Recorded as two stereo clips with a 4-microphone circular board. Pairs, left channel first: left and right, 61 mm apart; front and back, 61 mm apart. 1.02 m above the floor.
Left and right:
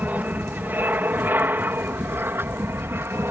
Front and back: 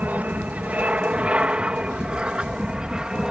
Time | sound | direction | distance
0.0 | an aircraft | 135° right | ?